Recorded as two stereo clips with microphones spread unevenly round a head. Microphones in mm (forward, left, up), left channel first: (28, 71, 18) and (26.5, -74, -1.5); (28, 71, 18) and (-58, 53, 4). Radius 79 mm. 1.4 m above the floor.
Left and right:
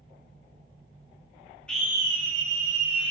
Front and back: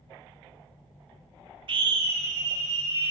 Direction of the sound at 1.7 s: 175° left.